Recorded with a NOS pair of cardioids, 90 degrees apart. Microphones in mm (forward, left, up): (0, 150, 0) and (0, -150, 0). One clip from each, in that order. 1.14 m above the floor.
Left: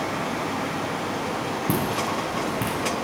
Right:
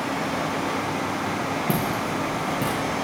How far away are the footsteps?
About 6 m.